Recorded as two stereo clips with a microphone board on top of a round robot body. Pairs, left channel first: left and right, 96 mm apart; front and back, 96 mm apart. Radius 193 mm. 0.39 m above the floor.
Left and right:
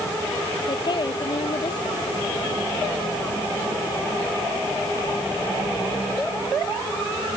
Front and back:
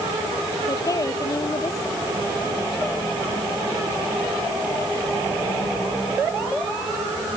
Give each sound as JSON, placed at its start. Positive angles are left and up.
{"t": 0.7, "sound": "a woman speaking", "azimuth_deg": 50}